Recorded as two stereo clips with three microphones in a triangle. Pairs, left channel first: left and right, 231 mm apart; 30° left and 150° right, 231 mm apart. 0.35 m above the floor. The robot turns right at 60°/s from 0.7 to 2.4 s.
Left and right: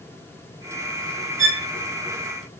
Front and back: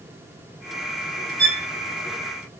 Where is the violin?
Straight behind, 2 m; by 1.7 s 165° right, 2 m.